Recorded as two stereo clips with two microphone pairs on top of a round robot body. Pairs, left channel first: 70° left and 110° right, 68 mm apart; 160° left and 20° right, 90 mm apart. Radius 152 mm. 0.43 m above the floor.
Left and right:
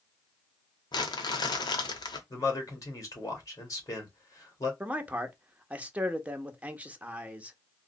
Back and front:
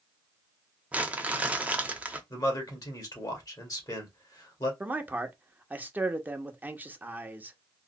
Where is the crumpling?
55° left, 0.8 m.